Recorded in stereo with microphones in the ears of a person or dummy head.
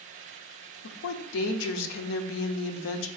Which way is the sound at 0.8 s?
70° left (ahead or behind).